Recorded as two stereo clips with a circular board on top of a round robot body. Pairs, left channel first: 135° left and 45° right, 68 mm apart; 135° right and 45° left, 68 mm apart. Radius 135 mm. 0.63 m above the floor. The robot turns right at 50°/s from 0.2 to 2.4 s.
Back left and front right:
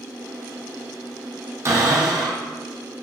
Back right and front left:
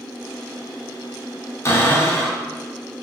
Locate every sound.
1.6 s a cupboard door: 90° right, 2.5 m; by 2.4 s 50° right, 2.5 m